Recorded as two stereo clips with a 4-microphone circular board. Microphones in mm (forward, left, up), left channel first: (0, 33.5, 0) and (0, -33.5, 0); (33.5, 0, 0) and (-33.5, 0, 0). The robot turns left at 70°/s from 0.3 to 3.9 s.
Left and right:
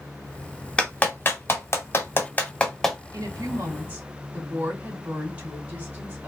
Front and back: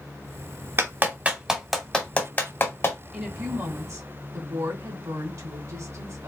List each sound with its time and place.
0.8 s a clap: 155° left, 1.4 m; by 3.0 s straight ahead, 1.4 m
3.1 s a woman speaking: 100° right, 2.5 m; by 6.3 s 155° right, 2.5 m